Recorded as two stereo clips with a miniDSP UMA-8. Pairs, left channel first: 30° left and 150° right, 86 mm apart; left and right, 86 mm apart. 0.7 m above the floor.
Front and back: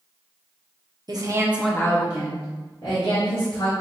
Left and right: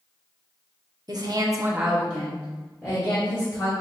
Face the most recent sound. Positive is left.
turn(degrees=30)